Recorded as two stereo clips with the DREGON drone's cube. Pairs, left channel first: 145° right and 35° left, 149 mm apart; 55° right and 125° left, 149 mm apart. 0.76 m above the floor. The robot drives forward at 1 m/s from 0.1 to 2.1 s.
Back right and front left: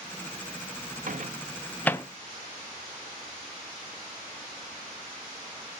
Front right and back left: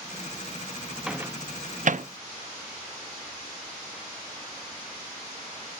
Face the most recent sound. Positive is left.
turn(degrees=150)